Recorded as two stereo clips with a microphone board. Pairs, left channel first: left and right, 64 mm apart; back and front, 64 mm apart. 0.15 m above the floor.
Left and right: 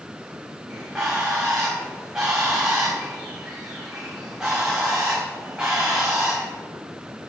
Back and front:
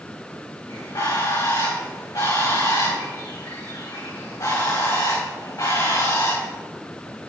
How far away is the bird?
About 7 m.